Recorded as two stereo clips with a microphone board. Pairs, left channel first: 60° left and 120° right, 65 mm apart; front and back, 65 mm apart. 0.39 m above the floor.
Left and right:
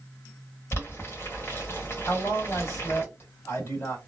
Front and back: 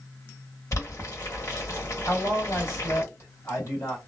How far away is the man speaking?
About 1.9 m.